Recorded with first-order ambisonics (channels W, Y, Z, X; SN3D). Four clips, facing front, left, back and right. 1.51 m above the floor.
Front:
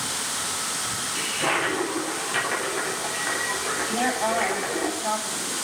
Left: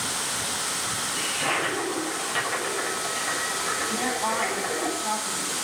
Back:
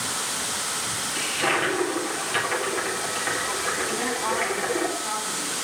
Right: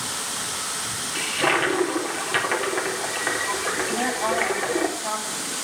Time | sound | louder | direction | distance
1.1 | a toilet flushing | right 6 dB, back 1 dB | 90° right | 4 m
3.9 | a woman speaking | right 2 dB, front 2 dB | 35° right | 8 m